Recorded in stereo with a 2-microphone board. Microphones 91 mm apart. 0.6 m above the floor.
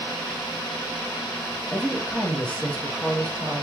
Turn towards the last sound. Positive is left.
turn(degrees=15)  # may be behind; listen again after turning